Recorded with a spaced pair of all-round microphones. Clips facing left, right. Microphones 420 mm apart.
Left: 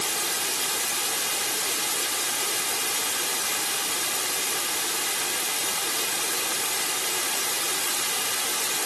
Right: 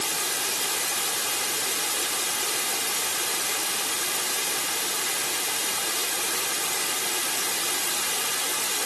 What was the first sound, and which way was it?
Only background noise.